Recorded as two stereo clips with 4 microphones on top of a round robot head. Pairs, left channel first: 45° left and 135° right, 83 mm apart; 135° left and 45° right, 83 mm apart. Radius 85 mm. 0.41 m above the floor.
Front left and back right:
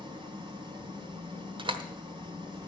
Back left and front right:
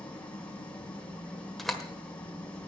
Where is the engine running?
150° right, 2 m.